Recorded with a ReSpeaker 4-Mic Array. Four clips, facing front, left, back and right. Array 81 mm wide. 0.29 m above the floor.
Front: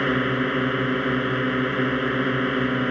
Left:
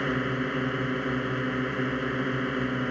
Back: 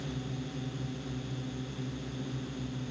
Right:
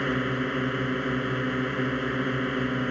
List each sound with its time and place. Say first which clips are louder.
0.0 s a drone: right 1 dB, front 17 dB; straight ahead